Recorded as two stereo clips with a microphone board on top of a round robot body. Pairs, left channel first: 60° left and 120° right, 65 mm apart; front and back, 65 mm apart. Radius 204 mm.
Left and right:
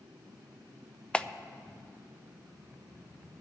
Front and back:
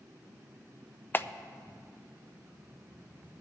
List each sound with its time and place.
1.1 s a clap: straight ahead, 0.6 m